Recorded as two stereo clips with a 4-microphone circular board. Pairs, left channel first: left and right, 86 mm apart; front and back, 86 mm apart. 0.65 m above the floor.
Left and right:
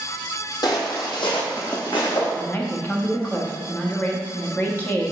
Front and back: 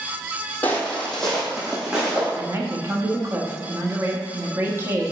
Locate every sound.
0.6 s footsteps: 70° left, 1.3 m; by 2.3 s 100° left, 3 m
2.4 s a man speaking: 140° left, 1.0 m